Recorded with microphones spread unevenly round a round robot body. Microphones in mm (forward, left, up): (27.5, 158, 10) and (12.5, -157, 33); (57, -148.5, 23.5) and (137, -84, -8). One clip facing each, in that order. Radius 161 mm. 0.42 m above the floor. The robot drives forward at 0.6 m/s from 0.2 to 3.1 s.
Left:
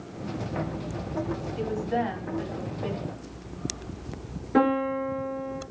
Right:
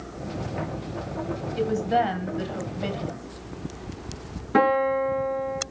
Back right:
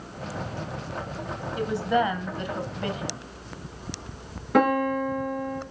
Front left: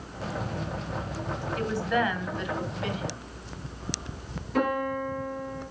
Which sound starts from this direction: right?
A woman speaking, at 1.6 s.